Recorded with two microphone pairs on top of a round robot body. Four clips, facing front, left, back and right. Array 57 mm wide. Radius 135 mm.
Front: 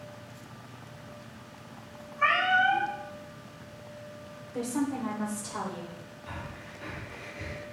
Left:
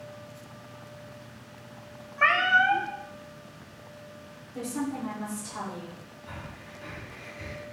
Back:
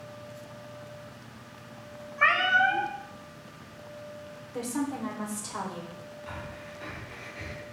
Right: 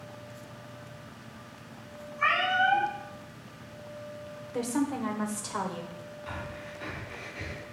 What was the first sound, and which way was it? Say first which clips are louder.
A cat meowing: left 4 dB, back 1 dB; 145° left.